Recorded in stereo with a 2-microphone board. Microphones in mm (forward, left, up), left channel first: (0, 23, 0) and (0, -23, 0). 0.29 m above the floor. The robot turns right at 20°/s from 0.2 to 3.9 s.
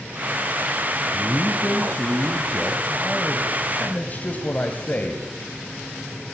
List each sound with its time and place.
1.1 s a man speaking: 5° right, 1.7 m; by 5.2 s 50° left, 1.7 m